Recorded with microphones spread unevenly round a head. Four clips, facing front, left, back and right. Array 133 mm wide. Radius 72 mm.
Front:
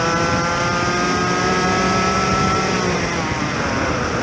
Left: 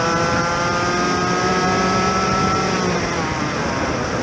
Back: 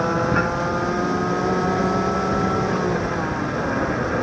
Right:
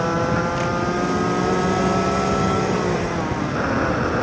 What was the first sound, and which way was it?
Only background noise.